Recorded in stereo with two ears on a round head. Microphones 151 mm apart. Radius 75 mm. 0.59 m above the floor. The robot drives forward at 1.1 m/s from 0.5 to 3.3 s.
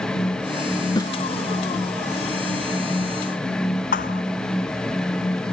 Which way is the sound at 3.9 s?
55° left (ahead or behind).